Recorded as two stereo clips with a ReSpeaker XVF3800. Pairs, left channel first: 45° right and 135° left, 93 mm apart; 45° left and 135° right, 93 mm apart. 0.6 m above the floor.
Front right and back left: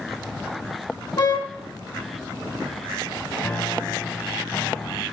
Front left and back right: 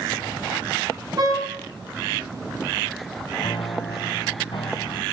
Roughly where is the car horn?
Right.